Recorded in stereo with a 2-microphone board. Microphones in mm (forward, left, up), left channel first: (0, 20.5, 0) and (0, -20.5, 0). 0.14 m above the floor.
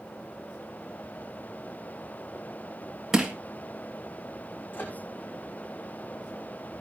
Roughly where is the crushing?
Centre.